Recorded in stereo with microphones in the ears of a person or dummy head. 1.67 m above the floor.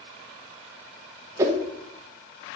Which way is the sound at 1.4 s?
25° right (ahead or behind).